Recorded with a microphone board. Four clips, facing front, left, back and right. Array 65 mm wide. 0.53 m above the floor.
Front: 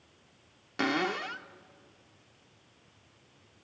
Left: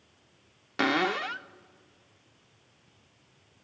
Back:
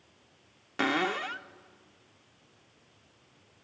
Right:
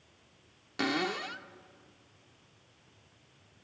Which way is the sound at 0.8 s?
100° left.